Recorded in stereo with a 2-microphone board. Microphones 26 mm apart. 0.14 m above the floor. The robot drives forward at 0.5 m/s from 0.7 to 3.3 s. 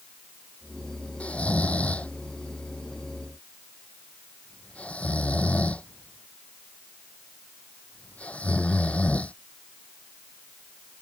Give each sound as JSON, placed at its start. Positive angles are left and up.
{"t": 1.2, "sound": "snoring", "side_deg": 70}